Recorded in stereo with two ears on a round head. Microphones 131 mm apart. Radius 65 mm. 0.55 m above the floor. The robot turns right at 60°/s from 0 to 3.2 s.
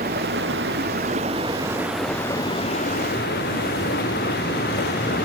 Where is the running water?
120° right; by 5.3 s 75° left.